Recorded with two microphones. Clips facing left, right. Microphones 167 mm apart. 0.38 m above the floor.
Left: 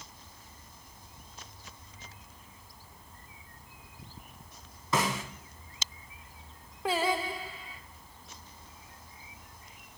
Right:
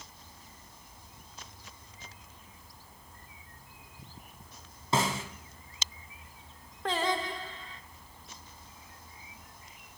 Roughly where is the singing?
Centre.